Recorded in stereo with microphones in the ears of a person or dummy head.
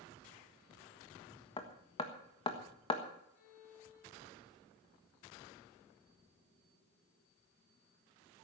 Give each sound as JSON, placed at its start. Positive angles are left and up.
{"t": 1.6, "sound": "hammering", "side_deg": 20, "distance_m": 1.5}
{"t": 3.3, "sound": "a violin", "side_deg": 70, "distance_m": 3.5}